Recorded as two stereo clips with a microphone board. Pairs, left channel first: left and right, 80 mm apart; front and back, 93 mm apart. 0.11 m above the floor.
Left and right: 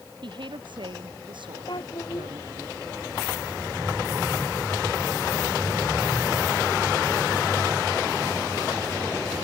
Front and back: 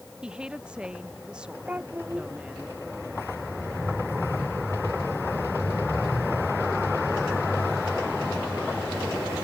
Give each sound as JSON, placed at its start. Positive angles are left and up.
{"t": 0.2, "sound": "a woman speaking", "azimuth_deg": -100}
{"t": 1.7, "sound": "a child speaking", "azimuth_deg": 105}